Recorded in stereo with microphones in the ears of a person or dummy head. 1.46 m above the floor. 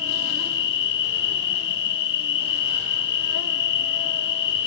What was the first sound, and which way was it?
An insect, 55° left (ahead or behind).